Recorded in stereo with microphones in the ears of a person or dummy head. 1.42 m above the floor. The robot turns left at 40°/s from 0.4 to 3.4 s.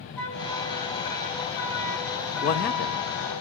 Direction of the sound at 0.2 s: 165° left.